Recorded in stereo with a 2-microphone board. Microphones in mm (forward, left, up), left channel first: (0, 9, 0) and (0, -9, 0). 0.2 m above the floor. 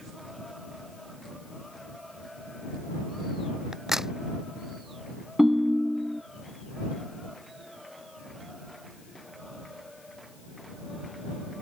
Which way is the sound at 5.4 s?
20° right (ahead or behind).